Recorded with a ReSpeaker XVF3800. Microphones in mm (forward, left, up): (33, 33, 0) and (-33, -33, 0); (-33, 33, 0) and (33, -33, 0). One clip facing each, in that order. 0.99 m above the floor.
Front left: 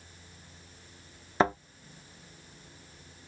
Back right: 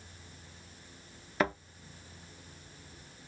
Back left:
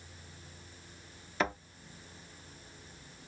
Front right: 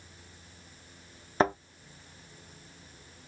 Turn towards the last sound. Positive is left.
turn(degrees=-5)